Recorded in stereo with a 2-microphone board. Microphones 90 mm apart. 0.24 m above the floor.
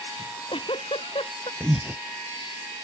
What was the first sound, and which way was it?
A giggle, 85° left.